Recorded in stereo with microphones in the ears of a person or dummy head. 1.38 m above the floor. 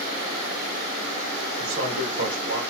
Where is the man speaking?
75° right (ahead or behind), 1.4 m.